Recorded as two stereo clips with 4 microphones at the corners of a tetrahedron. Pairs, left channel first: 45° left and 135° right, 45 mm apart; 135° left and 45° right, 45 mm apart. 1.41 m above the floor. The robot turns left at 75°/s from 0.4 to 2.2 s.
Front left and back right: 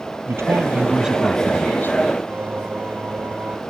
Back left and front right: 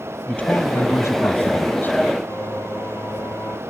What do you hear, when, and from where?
0.3 s a man speaking: 165° right; by 2.0 s 80° left
2.3 s singing: 175° left